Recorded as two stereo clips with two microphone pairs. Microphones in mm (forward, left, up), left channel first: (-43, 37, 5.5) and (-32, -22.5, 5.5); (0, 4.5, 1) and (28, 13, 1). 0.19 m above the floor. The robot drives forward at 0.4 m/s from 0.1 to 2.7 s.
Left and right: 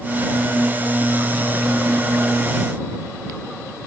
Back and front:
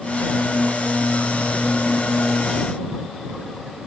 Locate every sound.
Only background noise.